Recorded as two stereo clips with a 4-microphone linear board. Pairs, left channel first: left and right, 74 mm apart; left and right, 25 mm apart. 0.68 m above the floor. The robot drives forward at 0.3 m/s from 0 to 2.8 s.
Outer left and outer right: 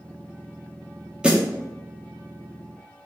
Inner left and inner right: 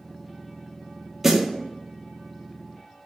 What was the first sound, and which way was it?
A snare drum, 15° right (ahead or behind).